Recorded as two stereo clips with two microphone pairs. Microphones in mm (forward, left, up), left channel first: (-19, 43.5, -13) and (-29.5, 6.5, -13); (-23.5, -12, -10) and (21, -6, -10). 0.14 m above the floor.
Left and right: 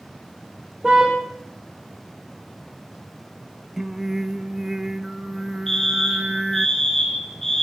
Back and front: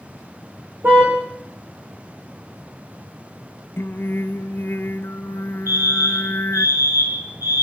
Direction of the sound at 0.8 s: 35° right.